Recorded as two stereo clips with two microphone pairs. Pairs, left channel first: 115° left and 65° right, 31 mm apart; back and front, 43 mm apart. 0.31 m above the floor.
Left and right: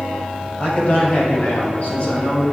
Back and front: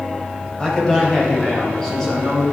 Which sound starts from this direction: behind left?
A man speaking, at 0.6 s.